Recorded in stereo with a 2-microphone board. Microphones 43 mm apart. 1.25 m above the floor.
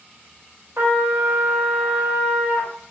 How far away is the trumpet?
About 0.5 m.